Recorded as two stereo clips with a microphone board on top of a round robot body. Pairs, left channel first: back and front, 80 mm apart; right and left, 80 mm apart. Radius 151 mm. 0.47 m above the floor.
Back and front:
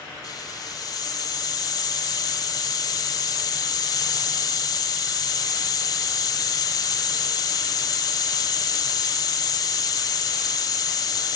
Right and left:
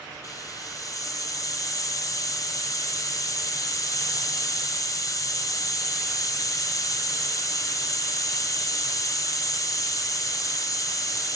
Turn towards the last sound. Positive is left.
turn(degrees=-135)